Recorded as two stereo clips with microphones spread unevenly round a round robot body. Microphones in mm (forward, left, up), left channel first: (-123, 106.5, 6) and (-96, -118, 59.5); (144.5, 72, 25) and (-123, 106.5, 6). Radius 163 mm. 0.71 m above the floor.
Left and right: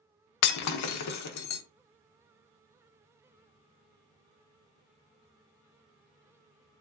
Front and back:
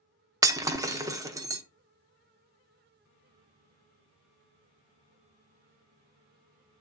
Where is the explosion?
No explosion in this recording.